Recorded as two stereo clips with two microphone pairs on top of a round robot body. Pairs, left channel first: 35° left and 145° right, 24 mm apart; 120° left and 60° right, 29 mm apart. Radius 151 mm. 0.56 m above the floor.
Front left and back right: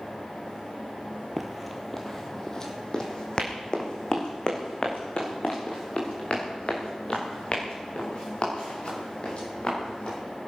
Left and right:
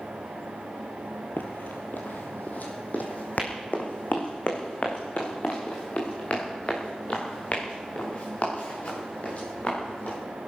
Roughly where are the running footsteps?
Behind left.